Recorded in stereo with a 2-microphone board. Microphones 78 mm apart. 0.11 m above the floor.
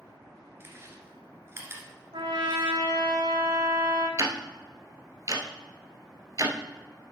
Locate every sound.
0.6 s chewing: 30° right (ahead or behind), 1.6 m
2.1 s a trumpet: 75° right (ahead or behind), 3 m
4.2 s ticking: 45° right (ahead or behind), 0.9 m